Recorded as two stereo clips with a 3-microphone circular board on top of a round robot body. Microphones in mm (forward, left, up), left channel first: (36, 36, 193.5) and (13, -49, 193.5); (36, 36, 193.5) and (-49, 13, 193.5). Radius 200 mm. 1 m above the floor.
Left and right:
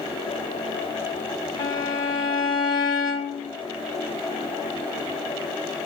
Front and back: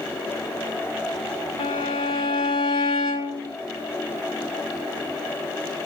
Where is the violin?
40° left, 2 m.